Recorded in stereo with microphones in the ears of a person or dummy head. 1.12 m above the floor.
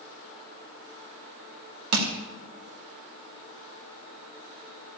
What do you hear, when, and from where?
1.9 s crushing: 75° right (ahead or behind), 1.8 m